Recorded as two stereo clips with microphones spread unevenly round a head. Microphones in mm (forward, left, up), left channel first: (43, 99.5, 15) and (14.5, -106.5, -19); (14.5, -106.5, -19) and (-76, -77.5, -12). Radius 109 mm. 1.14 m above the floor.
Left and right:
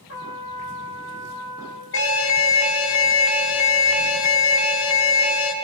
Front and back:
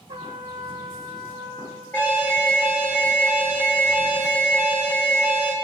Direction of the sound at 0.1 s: 110° left.